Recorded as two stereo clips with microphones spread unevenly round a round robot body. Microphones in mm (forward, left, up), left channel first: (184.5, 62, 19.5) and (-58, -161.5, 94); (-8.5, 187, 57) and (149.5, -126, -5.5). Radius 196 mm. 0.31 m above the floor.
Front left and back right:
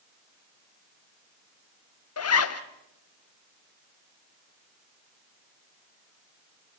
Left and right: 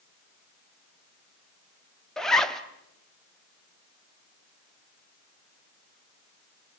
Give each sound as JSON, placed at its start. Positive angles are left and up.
{"t": 2.2, "sound": "a zipper", "azimuth_deg": 20, "distance_m": 1.3}